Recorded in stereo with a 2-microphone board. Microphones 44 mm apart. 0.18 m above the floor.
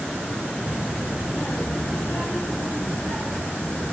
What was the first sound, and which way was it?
A child speaking, 40° left (ahead or behind).